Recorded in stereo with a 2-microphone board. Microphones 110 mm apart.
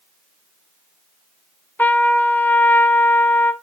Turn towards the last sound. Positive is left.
turn(degrees=15)  # may be behind; listen again after turning